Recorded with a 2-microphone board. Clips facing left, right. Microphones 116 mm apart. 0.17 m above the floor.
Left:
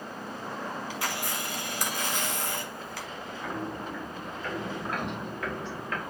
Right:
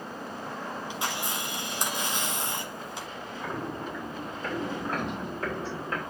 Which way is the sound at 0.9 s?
20° right (ahead or behind).